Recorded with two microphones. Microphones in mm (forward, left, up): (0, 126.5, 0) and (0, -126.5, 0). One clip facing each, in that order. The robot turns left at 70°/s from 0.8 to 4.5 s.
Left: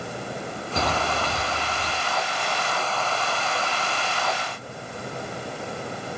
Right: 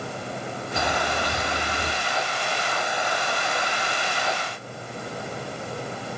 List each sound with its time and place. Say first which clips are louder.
0.8 s a bird: left 1 dB; 20° left, 2.5 m; by 1.9 s 60° right, 2.5 m